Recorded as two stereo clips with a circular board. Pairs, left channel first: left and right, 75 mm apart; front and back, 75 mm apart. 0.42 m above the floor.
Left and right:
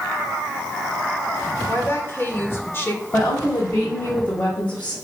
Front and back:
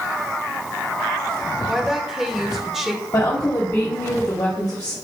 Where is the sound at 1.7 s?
100° left, 1.3 m.